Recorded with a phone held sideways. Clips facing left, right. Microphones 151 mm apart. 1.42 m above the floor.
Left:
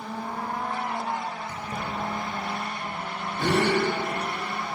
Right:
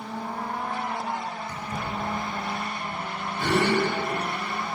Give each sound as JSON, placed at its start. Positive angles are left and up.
{"t": 1.5, "sound": "keys jangling", "side_deg": 25, "distance_m": 5.0}
{"t": 3.4, "sound": "a gasp", "side_deg": 55, "distance_m": 7.5}